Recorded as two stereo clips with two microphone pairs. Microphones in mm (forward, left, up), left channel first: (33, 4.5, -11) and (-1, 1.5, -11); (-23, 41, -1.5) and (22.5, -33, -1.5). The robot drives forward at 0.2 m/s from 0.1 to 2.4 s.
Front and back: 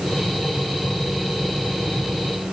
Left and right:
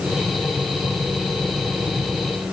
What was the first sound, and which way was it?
Only background noise.